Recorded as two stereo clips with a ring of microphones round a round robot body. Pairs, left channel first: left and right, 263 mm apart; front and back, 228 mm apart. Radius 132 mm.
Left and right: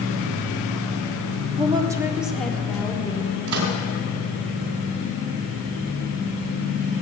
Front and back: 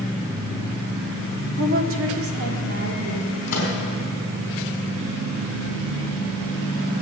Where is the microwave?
65° right, 3.5 m.